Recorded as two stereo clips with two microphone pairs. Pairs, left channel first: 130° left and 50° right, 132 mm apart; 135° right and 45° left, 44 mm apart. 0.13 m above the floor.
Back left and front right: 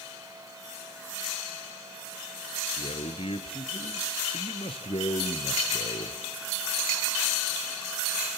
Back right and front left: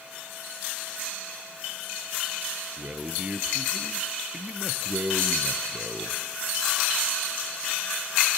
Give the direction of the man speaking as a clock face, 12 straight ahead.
8 o'clock.